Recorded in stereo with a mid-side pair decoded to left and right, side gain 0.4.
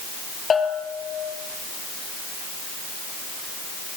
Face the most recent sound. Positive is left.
turn(degrees=45)